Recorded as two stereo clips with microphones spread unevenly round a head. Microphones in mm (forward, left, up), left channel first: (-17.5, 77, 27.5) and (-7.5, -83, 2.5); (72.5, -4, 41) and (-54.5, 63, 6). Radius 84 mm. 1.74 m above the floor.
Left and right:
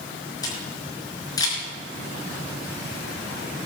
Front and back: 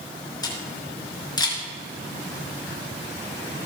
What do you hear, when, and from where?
0.4 s a camera shutter: 30° left, 4.5 m